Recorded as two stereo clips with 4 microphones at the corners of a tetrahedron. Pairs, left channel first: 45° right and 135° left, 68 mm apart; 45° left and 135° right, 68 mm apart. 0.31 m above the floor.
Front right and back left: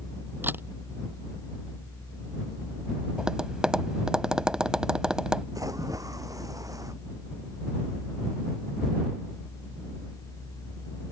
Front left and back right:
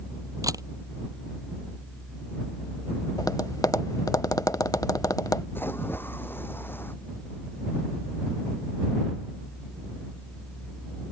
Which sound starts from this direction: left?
A splash, at 5.5 s.